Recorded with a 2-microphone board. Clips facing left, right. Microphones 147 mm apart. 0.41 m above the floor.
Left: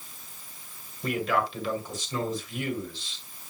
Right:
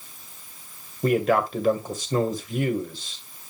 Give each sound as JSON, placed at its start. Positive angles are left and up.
{"t": 1.0, "sound": "a man speaking", "side_deg": -50, "distance_m": 1.8}